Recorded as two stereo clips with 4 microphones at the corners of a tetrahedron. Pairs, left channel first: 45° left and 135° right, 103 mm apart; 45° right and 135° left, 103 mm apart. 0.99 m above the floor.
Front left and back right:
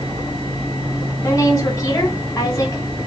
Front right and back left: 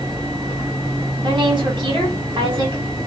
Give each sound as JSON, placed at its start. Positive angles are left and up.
{"t": 1.2, "sound": "a woman speaking", "azimuth_deg": 105, "distance_m": 1.9}